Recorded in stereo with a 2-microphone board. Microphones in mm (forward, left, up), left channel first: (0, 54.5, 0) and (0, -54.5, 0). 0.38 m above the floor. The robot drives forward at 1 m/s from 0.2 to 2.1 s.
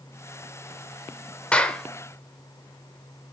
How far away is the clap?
About 0.7 m.